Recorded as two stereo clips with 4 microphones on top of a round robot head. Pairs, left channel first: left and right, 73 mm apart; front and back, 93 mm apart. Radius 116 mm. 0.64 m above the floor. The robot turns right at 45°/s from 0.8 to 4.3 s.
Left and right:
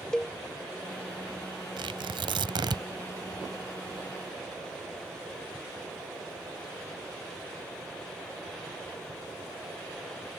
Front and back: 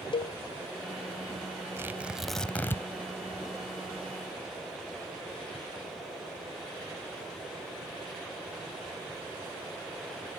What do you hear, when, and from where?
0.1 s a cowbell: 10° left
1.8 s tearing paper: 110° right; by 2.8 s 65° right